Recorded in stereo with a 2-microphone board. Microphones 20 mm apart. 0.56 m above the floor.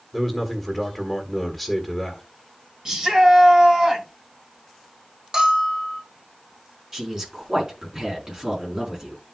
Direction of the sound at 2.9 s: 30° right (ahead or behind).